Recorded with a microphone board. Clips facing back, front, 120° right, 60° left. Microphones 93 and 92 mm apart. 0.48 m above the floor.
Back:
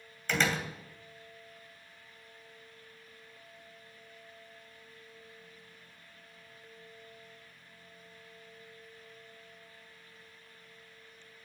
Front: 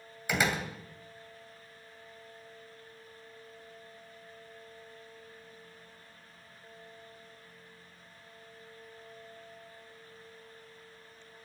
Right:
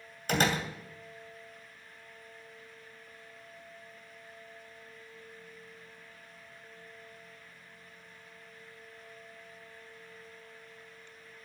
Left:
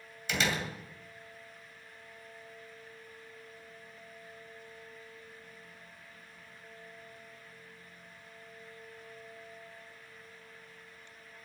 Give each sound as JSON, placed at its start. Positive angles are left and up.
{"t": 0.3, "sound": "a door slam", "azimuth_deg": -80, "distance_m": 2.5}